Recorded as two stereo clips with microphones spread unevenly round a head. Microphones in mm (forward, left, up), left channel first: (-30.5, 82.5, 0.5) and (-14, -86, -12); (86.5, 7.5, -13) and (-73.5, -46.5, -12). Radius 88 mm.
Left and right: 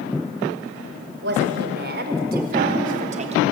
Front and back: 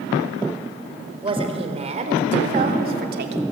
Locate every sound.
1.2 s a woman speaking: 100° right, 4.5 m; by 3.4 s 135° right, 3 m